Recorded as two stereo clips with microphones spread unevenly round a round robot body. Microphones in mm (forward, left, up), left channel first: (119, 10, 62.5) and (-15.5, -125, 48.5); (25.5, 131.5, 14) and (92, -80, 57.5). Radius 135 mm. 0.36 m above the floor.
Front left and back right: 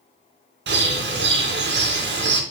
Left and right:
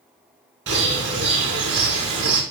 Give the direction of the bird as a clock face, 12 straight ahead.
4 o'clock.